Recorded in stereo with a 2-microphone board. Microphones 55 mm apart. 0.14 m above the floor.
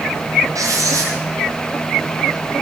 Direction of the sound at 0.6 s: 85° right.